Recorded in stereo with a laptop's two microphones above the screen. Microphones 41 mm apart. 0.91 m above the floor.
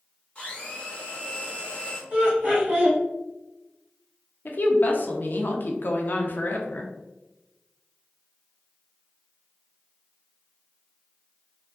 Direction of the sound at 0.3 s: 30° left (ahead or behind).